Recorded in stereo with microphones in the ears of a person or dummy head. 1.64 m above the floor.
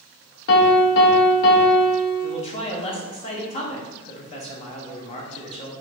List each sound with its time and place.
0.5 s a piano: 55° left (ahead or behind), 0.7 m
2.2 s a man speaking: 35° left (ahead or behind), 0.9 m